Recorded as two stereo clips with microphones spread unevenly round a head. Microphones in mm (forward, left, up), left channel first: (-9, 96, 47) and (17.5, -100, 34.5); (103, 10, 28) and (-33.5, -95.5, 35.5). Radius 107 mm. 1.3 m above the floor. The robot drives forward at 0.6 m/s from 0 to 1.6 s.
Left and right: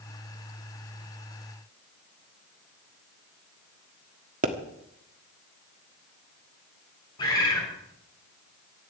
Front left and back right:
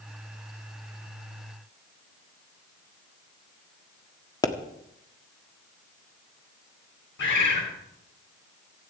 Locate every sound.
4.4 s a pop: 30° right, 1.4 m
7.2 s a bird: 30° left, 5 m